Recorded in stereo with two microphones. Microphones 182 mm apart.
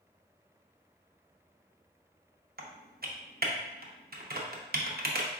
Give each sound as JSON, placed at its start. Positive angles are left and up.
{"t": 2.6, "sound": "typing on a keyboard", "side_deg": -60, "distance_m": 0.6}